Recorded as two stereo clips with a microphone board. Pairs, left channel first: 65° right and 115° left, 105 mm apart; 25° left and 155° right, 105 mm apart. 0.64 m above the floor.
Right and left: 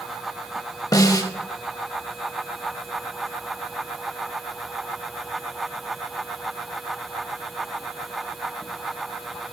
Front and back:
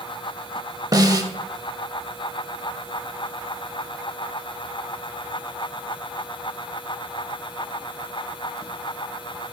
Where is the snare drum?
115° right, 0.6 m.